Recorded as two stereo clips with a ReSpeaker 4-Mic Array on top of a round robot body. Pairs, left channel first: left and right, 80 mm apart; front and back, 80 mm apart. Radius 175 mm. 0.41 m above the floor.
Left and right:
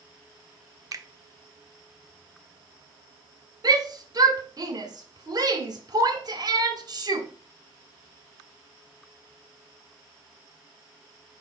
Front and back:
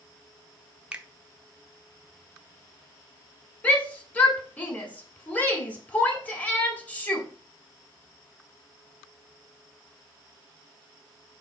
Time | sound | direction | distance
0.9 | a finger snap | 110° right | 0.8 m
3.6 | a shout | 70° right | 1.6 m